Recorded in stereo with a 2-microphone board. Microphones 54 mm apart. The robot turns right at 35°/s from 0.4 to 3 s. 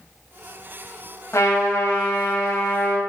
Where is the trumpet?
65° left, 1.8 m; by 3.0 s 120° left, 1.8 m.